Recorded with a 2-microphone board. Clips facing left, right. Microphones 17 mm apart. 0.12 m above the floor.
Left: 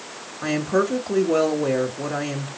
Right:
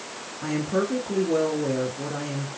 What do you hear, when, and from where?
0.4 s a woman speaking: 35° left (ahead or behind), 1.7 m